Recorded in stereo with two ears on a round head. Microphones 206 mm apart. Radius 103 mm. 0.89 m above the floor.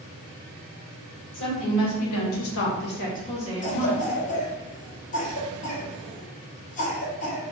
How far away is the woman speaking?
About 1.0 m.